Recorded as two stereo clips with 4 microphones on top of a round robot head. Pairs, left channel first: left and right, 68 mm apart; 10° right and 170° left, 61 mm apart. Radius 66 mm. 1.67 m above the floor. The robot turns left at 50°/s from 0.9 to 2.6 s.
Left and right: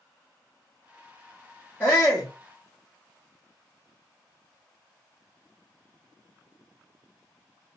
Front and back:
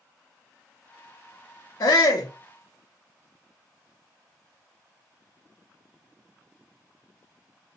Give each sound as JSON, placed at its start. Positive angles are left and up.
{"t": 1.8, "sound": "a shout", "azimuth_deg": 20, "distance_m": 0.6}